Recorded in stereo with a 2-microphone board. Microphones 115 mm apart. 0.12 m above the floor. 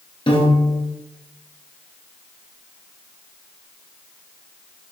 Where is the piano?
45° left (ahead or behind), 1.0 m.